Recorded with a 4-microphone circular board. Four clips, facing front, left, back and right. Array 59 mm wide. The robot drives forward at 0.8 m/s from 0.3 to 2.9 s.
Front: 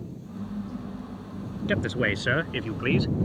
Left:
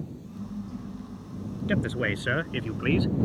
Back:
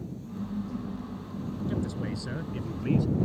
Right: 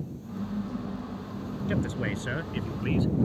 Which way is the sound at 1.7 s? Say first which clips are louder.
Left 3 dB, front 9 dB; 20° left.